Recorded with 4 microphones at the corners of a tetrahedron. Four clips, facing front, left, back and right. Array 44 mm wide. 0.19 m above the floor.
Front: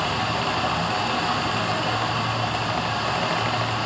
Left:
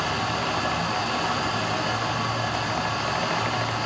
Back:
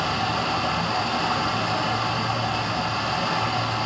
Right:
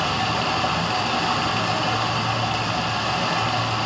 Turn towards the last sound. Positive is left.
turn(degrees=-70)